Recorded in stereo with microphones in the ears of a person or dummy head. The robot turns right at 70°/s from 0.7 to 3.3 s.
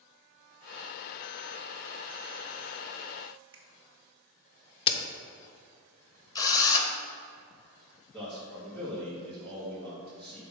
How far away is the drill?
About 0.8 m.